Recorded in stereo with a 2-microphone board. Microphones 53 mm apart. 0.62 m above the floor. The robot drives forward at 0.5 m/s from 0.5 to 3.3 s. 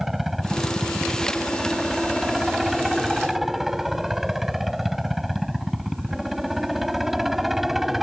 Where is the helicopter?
5° right (ahead or behind).